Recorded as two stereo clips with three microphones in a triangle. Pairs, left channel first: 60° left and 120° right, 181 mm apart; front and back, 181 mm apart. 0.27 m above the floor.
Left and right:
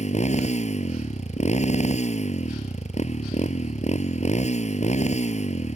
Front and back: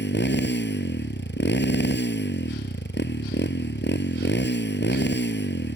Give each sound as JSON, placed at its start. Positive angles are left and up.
{"t": 0.0, "sound": "a motorcycle", "azimuth_deg": 10}